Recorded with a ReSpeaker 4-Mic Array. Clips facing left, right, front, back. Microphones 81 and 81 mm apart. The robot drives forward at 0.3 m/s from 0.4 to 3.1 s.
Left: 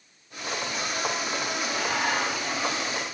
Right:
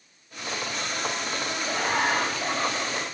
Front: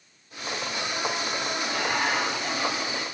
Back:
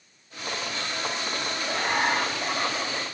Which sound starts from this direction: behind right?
Laughter, at 1.7 s.